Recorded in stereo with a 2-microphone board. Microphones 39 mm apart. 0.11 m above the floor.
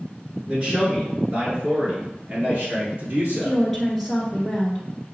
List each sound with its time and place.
0.5 s a man speaking: 25° right (ahead or behind), 1.6 m; by 3.6 s 45° right (ahead or behind), 2.5 m
3.4 s a woman speaking: 5° left (ahead or behind), 1.5 m